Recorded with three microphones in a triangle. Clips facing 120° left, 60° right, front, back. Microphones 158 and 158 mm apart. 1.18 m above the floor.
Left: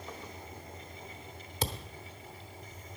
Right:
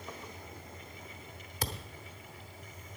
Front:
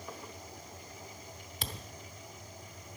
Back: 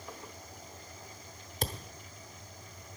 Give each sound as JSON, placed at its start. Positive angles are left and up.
{"t": 1.6, "sound": "a thud", "azimuth_deg": 175, "distance_m": 1.0}